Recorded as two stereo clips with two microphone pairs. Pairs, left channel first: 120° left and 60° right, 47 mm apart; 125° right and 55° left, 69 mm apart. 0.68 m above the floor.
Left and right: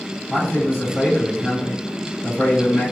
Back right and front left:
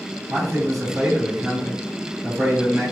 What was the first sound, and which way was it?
A man speaking, 140° left.